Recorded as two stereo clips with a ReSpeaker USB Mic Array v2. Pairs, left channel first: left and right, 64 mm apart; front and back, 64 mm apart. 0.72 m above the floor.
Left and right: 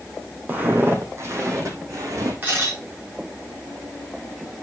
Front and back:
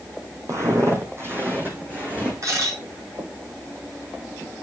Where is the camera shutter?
150° right, 4.5 m.